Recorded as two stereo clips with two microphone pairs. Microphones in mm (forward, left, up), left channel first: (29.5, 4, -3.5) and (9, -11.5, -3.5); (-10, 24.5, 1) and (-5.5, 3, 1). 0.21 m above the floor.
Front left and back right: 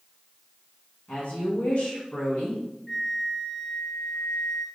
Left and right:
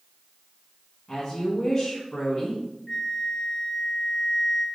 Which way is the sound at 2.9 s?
100° left.